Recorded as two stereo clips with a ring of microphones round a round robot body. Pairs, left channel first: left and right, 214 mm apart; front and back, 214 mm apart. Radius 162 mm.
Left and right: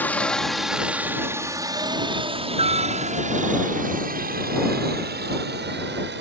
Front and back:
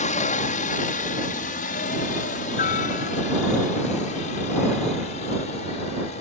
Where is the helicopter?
15° left; by 6.2 s 60° right.